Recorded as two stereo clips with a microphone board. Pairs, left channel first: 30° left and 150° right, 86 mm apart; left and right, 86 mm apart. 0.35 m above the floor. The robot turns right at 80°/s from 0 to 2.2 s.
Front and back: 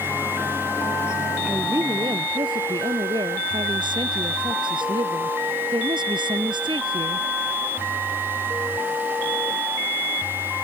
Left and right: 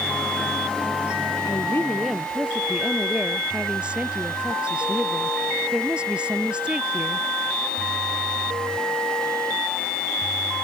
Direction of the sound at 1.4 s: 130° left.